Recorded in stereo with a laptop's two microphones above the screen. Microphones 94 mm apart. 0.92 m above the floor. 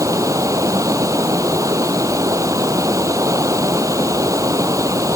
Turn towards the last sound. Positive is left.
turn(degrees=-35)  # may be behind; listen again after turning